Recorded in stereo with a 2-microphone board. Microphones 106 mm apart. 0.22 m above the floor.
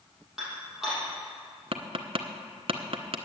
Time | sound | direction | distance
0.4 | dishes clattering | 5° right (ahead or behind) | 5.5 m
1.7 | tapping | 60° right (ahead or behind) | 0.9 m